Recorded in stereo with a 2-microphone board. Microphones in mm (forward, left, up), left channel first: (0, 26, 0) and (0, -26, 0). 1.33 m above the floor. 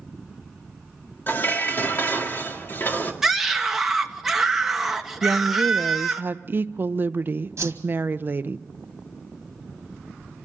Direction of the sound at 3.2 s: 5° right (ahead or behind).